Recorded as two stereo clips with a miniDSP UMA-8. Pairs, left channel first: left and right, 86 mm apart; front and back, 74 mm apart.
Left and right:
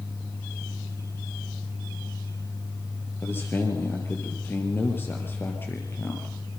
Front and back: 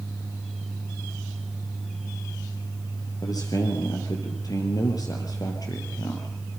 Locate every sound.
3.2 s a man speaking: 25° left, 4 m